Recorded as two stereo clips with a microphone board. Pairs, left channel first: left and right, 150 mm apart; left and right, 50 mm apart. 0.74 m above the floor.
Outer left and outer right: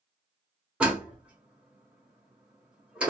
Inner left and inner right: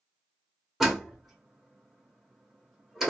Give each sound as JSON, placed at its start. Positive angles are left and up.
{"t": 0.8, "sound": "a door slam", "side_deg": -10, "distance_m": 1.2}